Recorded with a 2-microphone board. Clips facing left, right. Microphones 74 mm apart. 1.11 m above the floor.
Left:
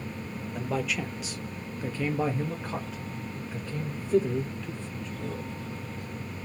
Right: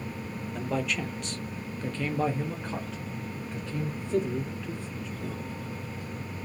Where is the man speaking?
Centre (ahead or behind), 0.8 m; by 5.5 s 5° left (ahead or behind), 2 m.